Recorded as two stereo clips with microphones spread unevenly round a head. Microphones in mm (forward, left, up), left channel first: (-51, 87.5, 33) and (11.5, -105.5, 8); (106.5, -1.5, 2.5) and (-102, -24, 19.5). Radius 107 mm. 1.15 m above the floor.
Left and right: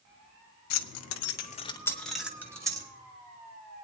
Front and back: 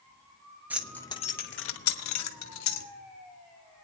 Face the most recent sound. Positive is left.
turn(degrees=5)